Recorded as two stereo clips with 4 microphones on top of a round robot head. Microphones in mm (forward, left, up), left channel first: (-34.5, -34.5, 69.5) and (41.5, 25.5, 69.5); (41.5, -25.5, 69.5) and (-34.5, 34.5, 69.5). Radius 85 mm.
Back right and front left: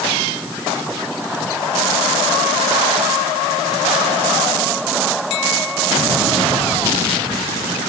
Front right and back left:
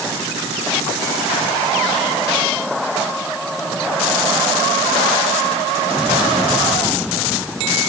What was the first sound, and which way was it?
Only background noise.